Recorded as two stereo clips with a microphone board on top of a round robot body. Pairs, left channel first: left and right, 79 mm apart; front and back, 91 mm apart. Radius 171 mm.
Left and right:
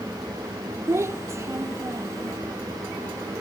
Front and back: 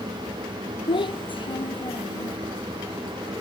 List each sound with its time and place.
0.9 s a child speaking: 35° right